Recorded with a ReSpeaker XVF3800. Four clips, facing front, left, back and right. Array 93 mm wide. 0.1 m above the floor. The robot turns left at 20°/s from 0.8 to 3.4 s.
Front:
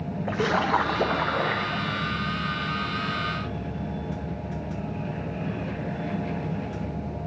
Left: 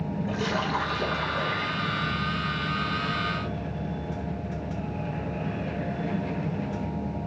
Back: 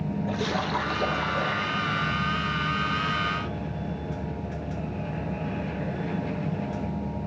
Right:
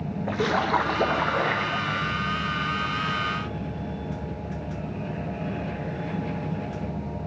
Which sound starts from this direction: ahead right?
A splash, at 0.3 s.